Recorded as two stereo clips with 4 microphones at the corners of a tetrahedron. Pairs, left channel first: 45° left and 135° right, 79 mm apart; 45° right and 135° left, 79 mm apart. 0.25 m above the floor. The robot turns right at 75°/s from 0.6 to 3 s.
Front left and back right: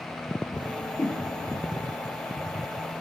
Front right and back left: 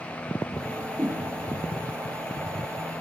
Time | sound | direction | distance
0.7 | a whoosh | 60° left | 3.5 m